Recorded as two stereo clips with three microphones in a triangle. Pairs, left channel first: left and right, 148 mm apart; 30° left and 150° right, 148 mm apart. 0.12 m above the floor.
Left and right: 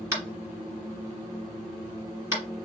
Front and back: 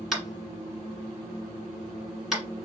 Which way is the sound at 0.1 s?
65° right.